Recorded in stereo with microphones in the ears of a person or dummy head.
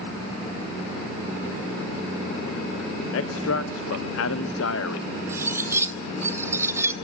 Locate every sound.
3.1 s a man speaking: 85° left, 0.8 m
5.3 s cutlery clinking: 10° right (ahead or behind), 0.9 m